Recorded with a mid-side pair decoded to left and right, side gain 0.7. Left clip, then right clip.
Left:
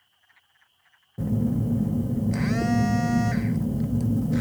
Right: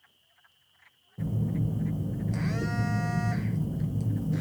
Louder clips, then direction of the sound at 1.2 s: Left 7 dB; 35° left.